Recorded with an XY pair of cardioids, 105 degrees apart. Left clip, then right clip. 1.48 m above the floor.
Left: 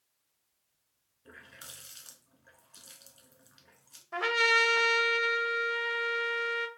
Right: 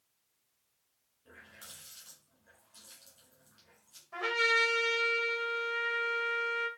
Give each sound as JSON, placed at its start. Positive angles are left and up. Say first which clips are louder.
{"t": 1.2, "sound": "a running tap", "louder": "left 3 dB", "azimuth_deg": 65, "distance_m": 1.6}
{"t": 4.1, "sound": "a trumpet", "louder": "left 3 dB", "azimuth_deg": 55, "distance_m": 0.8}